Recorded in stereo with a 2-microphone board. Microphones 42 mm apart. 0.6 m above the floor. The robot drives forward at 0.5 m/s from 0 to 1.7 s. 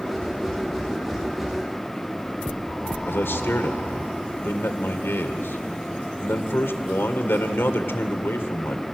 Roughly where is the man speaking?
Left.